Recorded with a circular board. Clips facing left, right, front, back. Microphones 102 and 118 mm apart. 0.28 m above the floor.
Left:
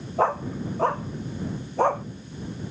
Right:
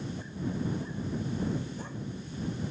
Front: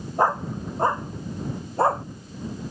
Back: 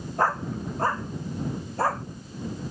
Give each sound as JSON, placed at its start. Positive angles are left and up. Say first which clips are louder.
{"t": 0.2, "sound": "a dog barking", "louder": "left 13 dB, front 3 dB", "azimuth_deg": 75}